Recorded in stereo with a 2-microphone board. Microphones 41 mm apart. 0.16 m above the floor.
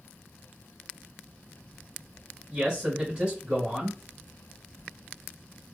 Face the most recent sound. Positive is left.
turn(degrees=-20)  # may be behind; listen again after turning